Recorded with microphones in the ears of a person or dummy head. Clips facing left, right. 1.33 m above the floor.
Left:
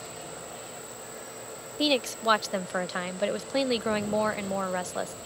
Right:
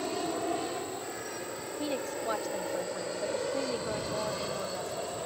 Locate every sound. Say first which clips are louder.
0.0 s an aircraft: right 10 dB; 65° right (ahead or behind)
1.8 s a woman speaking: left 8 dB; 85° left